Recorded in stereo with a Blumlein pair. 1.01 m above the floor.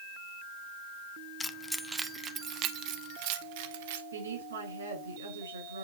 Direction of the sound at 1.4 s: 15° left.